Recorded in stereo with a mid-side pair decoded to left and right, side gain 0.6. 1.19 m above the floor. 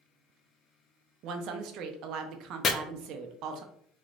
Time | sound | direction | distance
1.2 | a woman speaking | 60° right | 0.6 m
2.6 | chopping | 40° left | 0.5 m